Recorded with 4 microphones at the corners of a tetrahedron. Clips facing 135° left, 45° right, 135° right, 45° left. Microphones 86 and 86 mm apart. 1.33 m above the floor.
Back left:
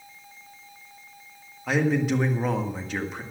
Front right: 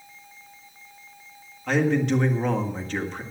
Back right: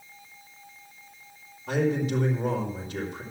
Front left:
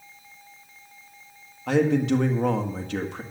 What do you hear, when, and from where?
1.7 s a man speaking: 50° left, 1.7 m